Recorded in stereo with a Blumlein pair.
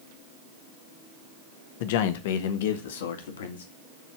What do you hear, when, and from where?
1.8 s a man speaking: 50° left, 1.3 m; by 3.6 s 60° left, 2.5 m